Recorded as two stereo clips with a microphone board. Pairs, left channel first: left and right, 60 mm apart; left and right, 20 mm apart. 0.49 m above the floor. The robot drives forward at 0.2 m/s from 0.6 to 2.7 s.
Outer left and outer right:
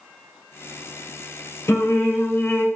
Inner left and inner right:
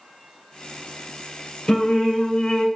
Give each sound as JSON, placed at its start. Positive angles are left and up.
{"t": 1.7, "sound": "singing", "side_deg": 45, "distance_m": 0.8}